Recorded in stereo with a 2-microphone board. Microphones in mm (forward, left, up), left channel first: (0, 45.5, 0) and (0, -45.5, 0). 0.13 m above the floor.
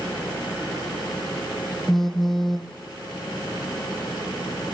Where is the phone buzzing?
5° left (ahead or behind), 1.6 m.